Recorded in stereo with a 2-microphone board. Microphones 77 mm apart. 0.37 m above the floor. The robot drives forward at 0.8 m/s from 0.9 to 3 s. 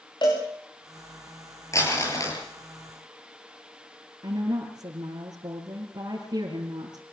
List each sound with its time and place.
0.2 s a cowbell: 75° left (ahead or behind), 7 m
1.7 s crumpling: 40° left (ahead or behind), 8 m; by 2.4 s 45° left (ahead or behind), 7.5 m
4.2 s a woman speaking: 60° right (ahead or behind), 5.5 m